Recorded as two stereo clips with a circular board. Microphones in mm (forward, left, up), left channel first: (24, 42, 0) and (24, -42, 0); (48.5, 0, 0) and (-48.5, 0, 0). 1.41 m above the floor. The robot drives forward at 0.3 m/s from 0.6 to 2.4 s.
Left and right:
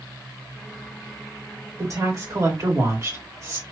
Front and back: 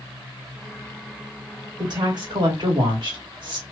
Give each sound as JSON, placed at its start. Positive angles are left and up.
{"t": 1.8, "sound": "a woman speaking", "azimuth_deg": -140, "distance_m": 1.9}